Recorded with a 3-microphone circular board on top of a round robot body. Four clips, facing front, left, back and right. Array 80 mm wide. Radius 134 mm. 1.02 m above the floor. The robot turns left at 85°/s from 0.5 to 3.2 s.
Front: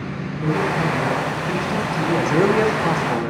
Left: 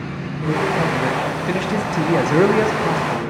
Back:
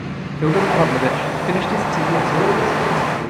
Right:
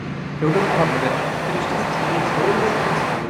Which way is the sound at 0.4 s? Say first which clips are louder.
Right 2 dB, back 5 dB; 130° right.